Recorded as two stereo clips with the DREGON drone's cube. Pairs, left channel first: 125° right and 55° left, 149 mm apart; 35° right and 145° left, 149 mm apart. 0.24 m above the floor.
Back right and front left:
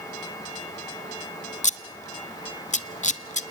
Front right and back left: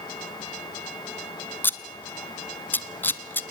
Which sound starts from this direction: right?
Scissors, at 1.6 s.